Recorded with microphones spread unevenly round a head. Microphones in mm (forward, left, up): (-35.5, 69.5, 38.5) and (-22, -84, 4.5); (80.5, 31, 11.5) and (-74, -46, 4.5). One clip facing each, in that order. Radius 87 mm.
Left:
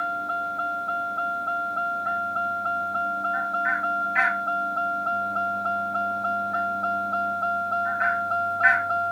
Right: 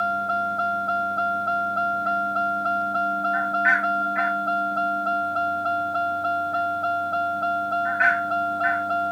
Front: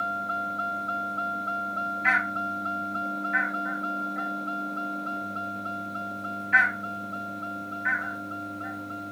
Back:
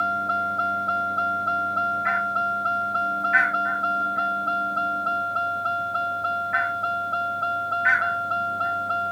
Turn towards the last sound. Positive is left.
turn(degrees=-145)